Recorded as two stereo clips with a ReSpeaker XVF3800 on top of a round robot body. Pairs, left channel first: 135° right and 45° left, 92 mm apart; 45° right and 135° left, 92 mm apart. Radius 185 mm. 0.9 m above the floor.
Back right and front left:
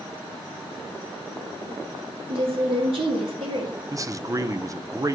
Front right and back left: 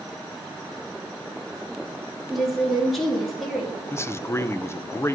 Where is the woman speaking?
45° left, 2.5 m.